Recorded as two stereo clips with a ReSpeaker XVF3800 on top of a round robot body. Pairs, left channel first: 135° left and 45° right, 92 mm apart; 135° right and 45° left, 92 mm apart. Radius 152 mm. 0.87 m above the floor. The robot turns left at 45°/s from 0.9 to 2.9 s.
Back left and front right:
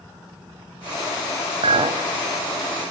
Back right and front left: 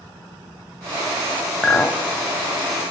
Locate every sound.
1.6 s a clink: 45° right, 1.2 m; by 2.0 s 65° right, 1.2 m